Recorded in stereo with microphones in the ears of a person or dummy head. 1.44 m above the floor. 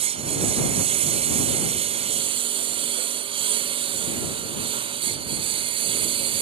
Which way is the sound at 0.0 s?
35° right (ahead or behind).